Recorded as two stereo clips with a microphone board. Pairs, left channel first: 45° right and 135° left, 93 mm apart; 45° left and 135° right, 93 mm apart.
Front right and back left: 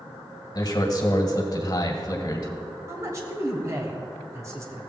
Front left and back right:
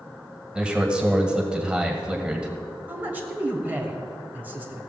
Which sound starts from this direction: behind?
A man speaking, at 2.9 s.